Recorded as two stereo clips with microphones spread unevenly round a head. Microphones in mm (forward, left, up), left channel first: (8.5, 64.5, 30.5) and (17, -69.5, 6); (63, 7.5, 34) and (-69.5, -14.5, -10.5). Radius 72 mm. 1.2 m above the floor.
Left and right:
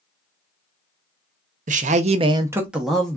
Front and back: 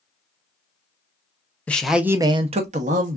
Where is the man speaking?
80° right, 0.7 m; by 3.2 s straight behind, 0.9 m.